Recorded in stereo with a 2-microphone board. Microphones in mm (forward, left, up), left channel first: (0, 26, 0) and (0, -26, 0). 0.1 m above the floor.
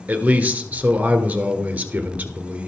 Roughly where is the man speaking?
Right.